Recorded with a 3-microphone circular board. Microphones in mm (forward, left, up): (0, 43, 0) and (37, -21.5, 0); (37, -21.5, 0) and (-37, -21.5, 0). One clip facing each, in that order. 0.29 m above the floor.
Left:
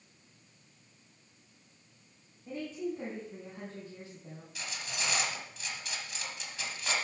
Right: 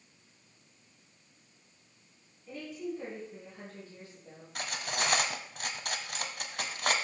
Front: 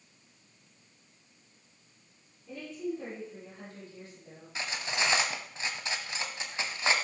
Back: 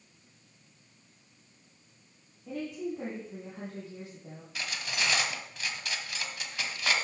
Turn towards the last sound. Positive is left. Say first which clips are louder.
# right 6 dB, front 2 dB
turn(degrees=-60)